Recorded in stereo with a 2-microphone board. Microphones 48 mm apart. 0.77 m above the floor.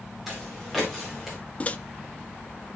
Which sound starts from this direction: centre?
Footsteps, at 0.3 s.